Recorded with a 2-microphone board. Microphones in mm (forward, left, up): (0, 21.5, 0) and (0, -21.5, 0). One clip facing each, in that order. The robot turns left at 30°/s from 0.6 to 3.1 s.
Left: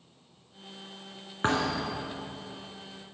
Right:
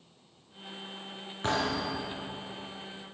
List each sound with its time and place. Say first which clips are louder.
1.4 s a thud: left 2 dB; 35° left (ahead or behind), 2.5 m; by 2.1 s 55° left (ahead or behind), 2.5 m